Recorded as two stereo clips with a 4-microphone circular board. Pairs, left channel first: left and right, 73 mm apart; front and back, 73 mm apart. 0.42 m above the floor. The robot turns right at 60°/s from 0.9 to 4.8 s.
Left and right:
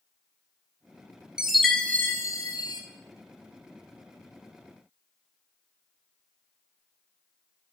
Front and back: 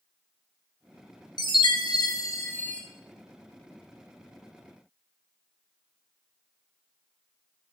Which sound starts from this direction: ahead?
A chime, at 1.4 s.